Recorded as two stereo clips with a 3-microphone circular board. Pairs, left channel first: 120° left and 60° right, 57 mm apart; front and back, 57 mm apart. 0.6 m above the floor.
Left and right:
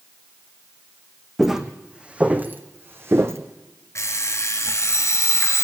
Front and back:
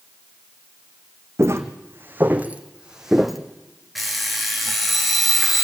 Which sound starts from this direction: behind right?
Footsteps, at 1.4 s.